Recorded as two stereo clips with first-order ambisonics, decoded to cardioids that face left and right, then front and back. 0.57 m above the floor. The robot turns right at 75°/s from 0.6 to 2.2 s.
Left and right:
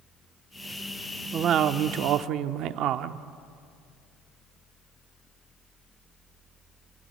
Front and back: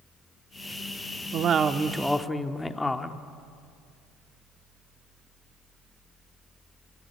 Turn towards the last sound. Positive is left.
turn(degrees=-80)